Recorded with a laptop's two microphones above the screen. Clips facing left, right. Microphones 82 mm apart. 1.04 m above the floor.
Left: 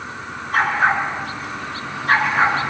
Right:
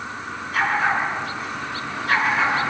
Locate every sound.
0.5 s a dog barking: 55° left (ahead or behind), 6 m; by 2.6 s 40° left (ahead or behind), 6.5 m